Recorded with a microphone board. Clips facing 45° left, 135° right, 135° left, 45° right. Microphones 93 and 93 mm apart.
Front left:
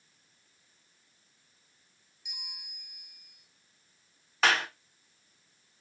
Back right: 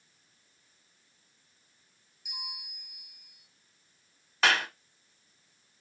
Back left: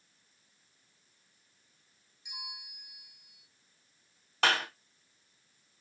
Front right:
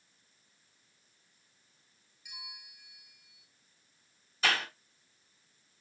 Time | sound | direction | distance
2.2 | a bell | 160° right | 1.2 m
4.4 | a clap | 135° left | 3 m